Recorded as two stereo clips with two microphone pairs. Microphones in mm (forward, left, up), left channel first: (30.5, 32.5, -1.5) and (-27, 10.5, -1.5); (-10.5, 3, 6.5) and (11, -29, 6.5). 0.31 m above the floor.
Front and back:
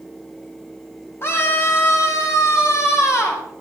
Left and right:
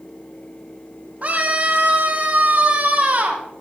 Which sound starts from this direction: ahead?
A scream, at 1.2 s.